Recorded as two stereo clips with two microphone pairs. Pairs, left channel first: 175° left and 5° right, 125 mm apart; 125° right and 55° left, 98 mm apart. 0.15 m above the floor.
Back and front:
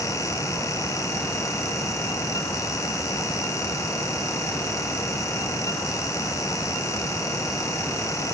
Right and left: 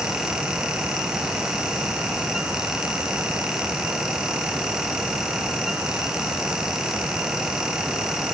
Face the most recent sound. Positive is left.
No sound to turn to.